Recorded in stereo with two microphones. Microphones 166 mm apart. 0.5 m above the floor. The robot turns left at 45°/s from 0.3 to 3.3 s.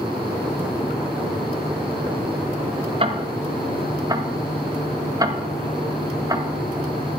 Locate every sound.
3.0 s ticking: 35° right (ahead or behind), 0.9 m; by 6.5 s 25° right (ahead or behind), 0.9 m